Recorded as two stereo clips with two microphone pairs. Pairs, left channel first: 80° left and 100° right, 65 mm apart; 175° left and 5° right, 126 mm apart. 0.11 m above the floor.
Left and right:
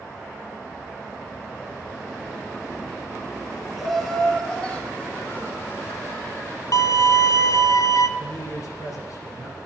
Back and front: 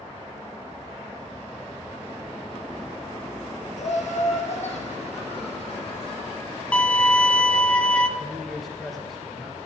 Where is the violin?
95° left, 0.6 m.